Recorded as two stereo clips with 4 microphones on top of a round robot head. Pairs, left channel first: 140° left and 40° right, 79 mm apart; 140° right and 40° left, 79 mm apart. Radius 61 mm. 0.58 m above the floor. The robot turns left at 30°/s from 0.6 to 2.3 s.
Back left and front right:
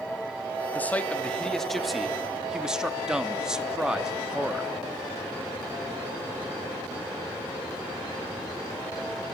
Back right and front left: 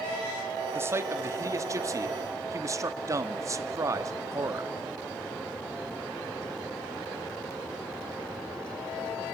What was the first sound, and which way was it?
A man speaking, 80° left.